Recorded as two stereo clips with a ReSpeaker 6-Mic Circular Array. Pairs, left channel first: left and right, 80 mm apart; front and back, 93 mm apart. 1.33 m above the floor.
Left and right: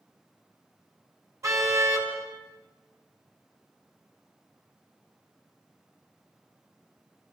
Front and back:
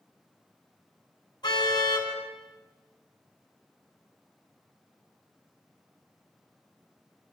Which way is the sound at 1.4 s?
40° right.